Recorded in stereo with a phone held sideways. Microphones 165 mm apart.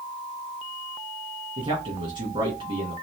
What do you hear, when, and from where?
1.6 s a man speaking: 40° right (ahead or behind), 1.7 m